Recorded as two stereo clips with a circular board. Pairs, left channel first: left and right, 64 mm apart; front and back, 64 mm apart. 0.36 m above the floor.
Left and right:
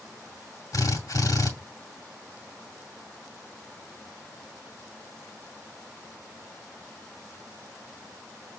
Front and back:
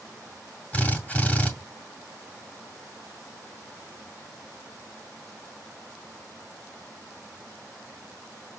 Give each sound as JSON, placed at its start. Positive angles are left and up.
{"t": 0.7, "sound": "a drill", "azimuth_deg": 65, "distance_m": 2.0}